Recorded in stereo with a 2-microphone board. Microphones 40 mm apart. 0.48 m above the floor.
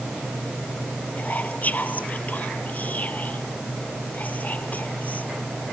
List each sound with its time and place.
1.2 s whispering: 40° left (ahead or behind)